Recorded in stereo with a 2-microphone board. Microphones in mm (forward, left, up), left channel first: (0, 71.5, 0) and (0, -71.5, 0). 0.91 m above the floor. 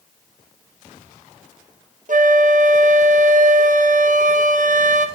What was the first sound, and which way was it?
A flute, 65° right (ahead or behind).